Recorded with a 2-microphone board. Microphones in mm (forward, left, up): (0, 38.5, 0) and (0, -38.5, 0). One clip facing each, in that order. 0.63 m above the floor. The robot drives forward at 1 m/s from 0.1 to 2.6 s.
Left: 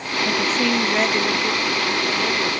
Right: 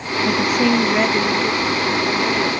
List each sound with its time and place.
0.2 s a woman speaking: 15° right (ahead or behind); by 2.5 s 5° right (ahead or behind)